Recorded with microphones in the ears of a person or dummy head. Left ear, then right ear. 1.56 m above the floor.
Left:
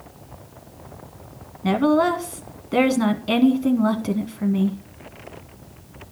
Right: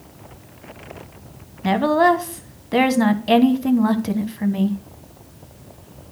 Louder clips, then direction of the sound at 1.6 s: Right 3 dB; 5° right (ahead or behind).